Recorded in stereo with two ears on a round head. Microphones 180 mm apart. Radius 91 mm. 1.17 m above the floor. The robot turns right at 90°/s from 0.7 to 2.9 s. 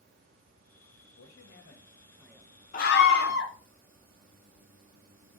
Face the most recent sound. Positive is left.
turn(degrees=55)  # may be behind; listen again after turning